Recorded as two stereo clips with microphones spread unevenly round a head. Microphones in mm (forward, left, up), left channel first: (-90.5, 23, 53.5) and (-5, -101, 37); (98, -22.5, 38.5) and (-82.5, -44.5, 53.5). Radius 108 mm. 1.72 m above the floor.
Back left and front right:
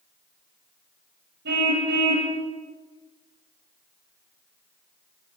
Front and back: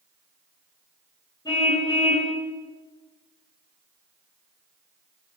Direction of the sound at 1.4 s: 65° right.